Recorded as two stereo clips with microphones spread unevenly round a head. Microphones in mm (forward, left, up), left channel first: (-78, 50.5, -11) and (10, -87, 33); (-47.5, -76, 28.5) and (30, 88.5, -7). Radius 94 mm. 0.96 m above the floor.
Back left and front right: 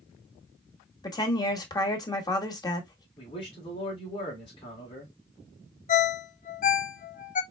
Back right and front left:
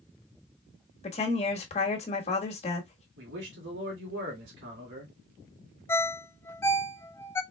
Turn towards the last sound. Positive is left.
turn(degrees=170)